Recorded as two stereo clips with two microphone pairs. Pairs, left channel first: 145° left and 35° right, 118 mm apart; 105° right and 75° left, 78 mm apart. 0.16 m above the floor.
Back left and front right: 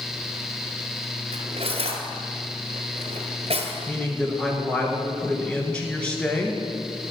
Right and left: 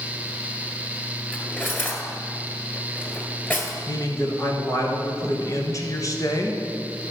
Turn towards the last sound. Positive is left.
turn(degrees=-135)